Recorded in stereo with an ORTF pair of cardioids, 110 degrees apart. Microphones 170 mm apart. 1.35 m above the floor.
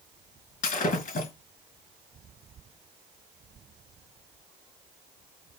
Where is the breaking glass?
50° left, 4 m.